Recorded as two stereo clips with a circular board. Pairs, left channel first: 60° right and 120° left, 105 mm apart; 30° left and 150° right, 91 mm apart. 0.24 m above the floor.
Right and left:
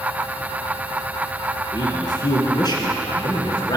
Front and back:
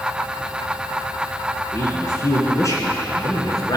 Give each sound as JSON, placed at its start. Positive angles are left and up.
{"t": 1.7, "sound": "a man speaking", "azimuth_deg": -25, "distance_m": 3.0}